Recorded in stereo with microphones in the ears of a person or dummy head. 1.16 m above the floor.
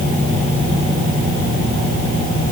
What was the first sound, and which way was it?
Only background noise.